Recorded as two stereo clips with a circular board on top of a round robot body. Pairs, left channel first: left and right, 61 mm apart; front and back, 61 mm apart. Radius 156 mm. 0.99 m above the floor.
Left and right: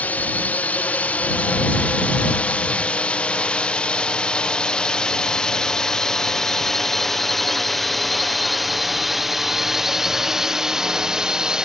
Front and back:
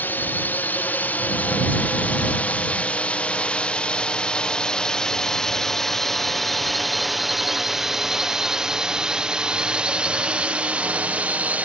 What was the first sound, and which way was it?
A drone, 40° left.